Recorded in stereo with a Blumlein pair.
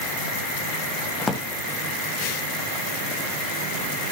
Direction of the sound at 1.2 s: 10° left.